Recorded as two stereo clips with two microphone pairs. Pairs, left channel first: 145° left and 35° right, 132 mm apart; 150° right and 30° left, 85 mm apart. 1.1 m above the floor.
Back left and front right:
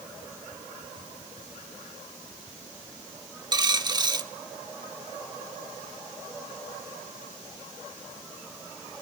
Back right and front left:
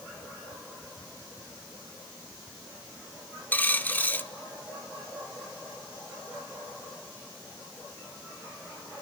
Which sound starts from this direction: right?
A dropped coin, at 3.5 s.